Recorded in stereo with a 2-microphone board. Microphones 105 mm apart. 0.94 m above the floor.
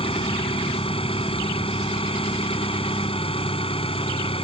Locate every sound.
0.0 s an engine running: 65° left (ahead or behind)